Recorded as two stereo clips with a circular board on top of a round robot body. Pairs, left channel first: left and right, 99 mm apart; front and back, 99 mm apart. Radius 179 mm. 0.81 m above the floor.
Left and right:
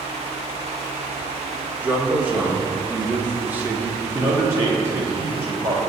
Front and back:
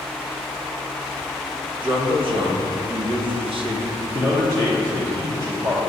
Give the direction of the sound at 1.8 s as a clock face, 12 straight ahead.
5 o'clock.